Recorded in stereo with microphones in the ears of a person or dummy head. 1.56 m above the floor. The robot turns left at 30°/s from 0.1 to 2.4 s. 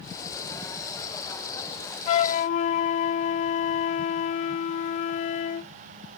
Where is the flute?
45° left (ahead or behind); by 5.7 s 50° left (ahead or behind).